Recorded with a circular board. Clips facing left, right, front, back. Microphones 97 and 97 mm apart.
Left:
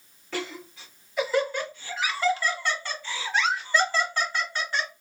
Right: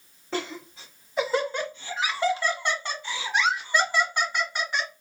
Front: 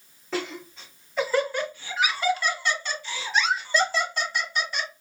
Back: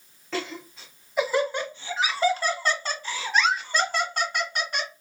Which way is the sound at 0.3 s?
75° right.